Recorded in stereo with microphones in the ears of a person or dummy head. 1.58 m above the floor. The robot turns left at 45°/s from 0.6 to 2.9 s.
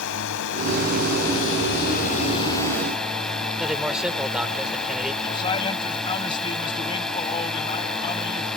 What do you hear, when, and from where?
0.0 s a drone: 110° left; by 8.6 s 5° left
3.6 s a man speaking: 5° right (ahead or behind)
5.2 s a man speaking: 25° left (ahead or behind)